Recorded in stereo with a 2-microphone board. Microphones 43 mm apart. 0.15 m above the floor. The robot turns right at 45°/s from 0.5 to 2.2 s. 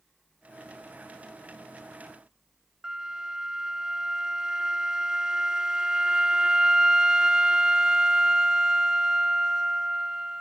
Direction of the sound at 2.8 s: 20° right (ahead or behind).